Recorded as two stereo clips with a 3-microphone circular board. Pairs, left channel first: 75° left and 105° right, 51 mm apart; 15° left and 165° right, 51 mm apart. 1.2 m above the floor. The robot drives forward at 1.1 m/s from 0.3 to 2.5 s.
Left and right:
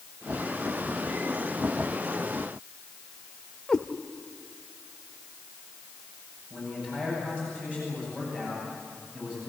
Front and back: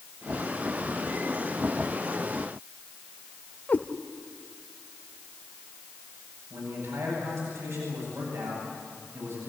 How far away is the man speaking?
About 9 m.